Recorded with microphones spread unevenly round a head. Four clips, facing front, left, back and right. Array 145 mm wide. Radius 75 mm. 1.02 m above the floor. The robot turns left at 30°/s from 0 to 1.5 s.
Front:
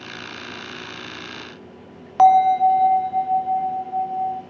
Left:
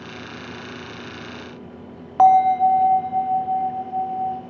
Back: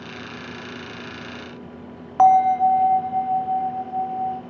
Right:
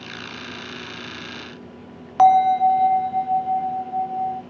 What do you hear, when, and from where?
2.2 s a bell: 110° right, 0.7 m